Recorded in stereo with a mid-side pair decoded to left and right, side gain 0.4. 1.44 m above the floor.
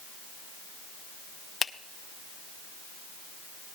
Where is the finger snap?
45° left, 0.7 m.